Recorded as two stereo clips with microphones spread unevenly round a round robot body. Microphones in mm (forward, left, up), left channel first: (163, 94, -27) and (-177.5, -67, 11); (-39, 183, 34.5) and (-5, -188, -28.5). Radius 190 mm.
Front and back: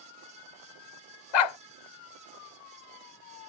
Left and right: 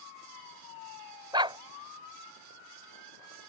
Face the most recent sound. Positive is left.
turn(degrees=0)